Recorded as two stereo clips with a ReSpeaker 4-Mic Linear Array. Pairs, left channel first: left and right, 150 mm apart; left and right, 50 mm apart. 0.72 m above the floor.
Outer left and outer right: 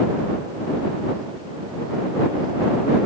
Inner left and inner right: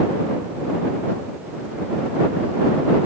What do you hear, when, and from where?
Only background noise.